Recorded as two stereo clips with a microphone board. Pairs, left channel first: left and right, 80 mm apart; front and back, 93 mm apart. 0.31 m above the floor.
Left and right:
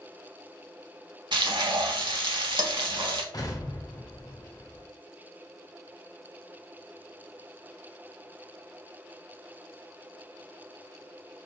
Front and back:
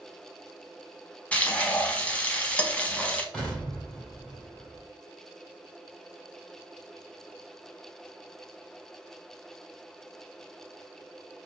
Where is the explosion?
80° left, 1.2 m.